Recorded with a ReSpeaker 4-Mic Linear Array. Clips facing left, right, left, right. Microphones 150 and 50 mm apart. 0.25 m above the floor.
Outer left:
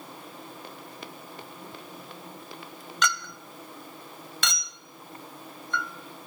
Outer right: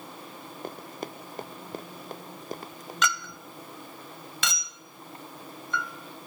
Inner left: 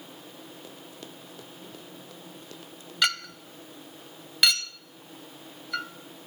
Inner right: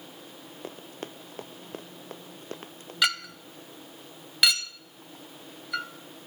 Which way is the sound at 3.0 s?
Centre (ahead or behind).